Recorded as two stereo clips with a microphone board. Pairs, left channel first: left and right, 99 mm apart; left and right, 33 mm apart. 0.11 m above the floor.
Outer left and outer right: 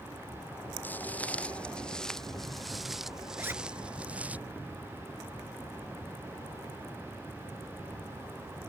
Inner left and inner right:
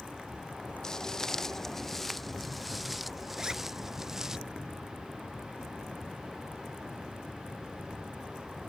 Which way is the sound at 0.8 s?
20° left (ahead or behind).